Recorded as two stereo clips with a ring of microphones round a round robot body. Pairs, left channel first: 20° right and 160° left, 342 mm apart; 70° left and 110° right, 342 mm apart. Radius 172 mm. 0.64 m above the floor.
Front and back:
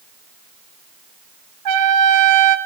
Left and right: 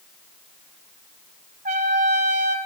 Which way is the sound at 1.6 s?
Straight behind.